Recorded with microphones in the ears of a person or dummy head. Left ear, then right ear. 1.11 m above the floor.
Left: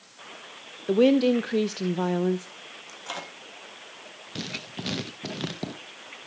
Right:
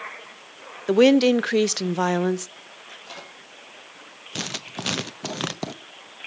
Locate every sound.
0.9 s a woman speaking: 45° right (ahead or behind), 0.6 m
2.9 s a microwave: 40° left (ahead or behind), 2 m
4.3 s writing: 35° right (ahead or behind), 0.7 m